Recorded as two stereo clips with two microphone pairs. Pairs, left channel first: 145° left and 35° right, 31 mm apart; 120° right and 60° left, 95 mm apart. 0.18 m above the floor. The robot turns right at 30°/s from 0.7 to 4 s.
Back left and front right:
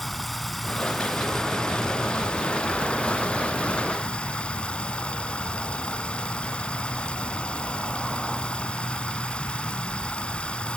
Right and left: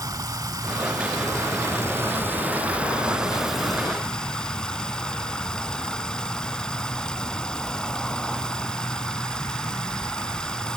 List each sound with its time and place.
0.0 s running water: 65° left, 0.9 m; by 10.8 s 160° left, 0.9 m